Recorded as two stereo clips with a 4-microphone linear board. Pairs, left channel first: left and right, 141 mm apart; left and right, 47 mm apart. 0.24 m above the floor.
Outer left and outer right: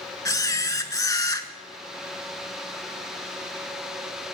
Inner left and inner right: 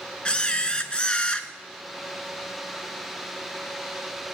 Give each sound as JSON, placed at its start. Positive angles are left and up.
{"t": 0.2, "sound": "a camera shutter", "side_deg": 25, "distance_m": 0.5}